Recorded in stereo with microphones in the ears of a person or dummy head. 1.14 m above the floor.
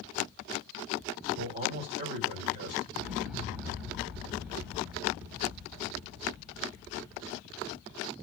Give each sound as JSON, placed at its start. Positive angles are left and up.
{"t": 1.3, "sound": "a man speaking", "side_deg": -55, "distance_m": 1.8}
{"t": 2.9, "sound": "an explosion", "side_deg": 0, "distance_m": 1.5}